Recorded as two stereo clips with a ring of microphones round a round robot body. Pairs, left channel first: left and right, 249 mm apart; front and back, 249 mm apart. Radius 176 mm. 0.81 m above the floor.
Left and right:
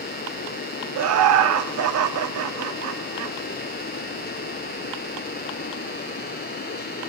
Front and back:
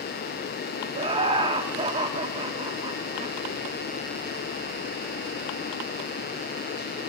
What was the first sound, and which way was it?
Laughter, 105° right.